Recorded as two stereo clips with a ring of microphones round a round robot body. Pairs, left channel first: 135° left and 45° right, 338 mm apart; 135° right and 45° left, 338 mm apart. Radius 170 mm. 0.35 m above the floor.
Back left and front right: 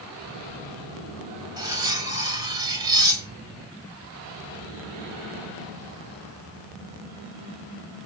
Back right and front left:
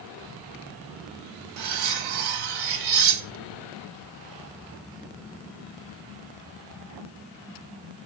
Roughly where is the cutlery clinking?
Ahead left.